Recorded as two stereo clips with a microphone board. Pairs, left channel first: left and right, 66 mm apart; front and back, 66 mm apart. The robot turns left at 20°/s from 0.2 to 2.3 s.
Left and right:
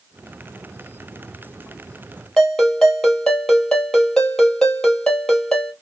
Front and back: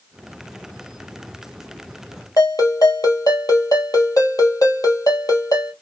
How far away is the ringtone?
About 1.6 m.